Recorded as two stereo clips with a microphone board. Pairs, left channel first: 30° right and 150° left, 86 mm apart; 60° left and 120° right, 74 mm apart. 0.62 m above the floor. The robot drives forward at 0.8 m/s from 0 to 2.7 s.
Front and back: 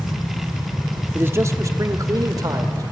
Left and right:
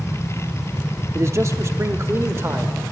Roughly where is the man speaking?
Behind right.